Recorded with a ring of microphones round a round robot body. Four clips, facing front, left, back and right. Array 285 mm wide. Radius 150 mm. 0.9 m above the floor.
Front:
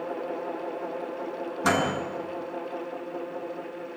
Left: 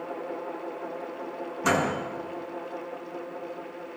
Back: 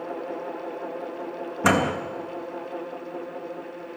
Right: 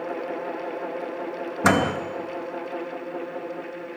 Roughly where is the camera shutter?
No camera shutter in this recording.